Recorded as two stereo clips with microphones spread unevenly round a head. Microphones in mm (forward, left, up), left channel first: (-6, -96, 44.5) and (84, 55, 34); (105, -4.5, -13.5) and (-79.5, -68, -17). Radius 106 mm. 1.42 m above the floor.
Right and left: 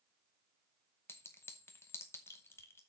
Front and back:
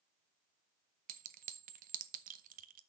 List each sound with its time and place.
1.1 s a clink: 165° left, 0.7 m